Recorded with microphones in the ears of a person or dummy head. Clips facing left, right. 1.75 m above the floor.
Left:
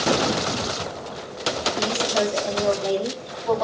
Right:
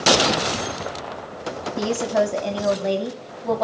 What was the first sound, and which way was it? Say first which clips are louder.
A woman speaking: right 5 dB; 70° right (ahead or behind).